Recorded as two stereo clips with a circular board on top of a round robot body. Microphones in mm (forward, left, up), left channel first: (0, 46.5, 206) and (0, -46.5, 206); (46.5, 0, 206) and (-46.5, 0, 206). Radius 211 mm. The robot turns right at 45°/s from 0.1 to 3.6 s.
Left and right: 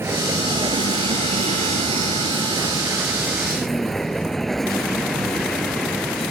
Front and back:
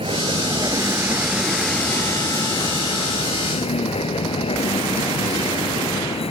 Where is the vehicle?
155° right; by 6.3 s straight ahead.